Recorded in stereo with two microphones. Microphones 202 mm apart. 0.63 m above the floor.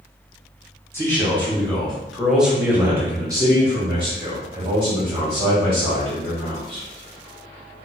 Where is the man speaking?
10° left (ahead or behind), 1.6 m; by 6.8 s 25° right (ahead or behind), 2.5 m.